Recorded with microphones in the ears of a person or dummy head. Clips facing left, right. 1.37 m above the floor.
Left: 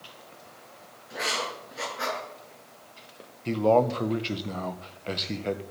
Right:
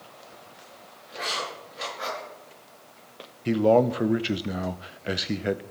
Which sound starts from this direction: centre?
A man speaking, at 3.5 s.